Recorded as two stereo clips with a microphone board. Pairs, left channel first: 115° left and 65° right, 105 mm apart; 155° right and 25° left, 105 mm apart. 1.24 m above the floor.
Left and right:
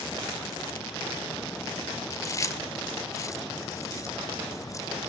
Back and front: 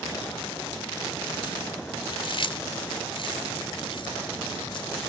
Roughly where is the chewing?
Behind.